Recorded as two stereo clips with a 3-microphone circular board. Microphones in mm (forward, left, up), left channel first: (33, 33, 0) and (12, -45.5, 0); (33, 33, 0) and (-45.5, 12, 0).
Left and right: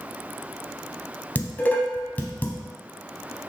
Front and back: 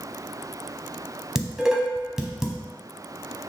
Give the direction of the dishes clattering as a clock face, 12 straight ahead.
8 o'clock.